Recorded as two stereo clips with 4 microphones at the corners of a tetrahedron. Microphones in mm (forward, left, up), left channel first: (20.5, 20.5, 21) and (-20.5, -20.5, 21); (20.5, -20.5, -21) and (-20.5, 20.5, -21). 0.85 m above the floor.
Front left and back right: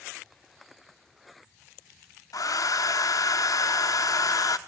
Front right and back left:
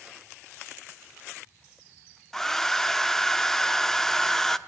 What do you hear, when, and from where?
2.3 s a hair dryer: 35° left, 0.8 m